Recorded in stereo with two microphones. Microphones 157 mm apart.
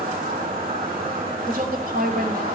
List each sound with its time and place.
0.0 s an insect: 70° right (ahead or behind), 2.5 m
1.4 s a woman speaking: 65° right (ahead or behind), 1.8 m